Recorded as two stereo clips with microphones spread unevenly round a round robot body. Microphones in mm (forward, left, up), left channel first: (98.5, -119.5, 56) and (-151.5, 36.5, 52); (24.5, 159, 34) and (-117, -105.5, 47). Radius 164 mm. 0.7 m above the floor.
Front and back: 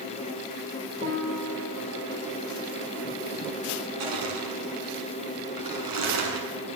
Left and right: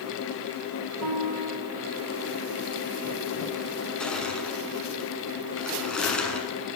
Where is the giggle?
I don't hear a giggle.